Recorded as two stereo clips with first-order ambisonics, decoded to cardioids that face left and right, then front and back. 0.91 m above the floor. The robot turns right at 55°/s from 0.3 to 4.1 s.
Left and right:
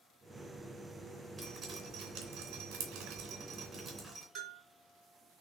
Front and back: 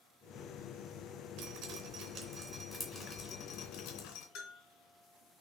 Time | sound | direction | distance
1.4 | dripping | 165° right | 3 m
4.3 | a bell | 30° right | 3 m